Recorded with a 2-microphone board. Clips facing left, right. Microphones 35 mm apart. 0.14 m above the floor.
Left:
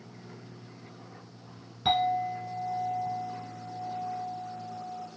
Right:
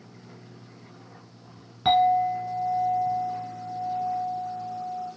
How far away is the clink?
About 1.3 m.